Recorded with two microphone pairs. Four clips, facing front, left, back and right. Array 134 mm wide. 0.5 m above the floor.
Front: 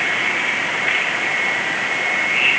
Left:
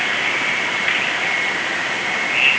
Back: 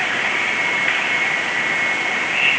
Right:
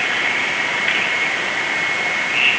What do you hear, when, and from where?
Only background noise.